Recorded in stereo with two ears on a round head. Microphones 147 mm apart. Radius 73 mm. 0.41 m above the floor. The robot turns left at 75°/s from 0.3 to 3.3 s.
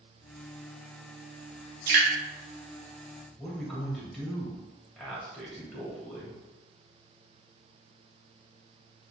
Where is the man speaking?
Centre (ahead or behind), 1.8 m.